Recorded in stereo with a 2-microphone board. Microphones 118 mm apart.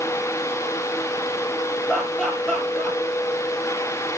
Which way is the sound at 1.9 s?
5° left (ahead or behind).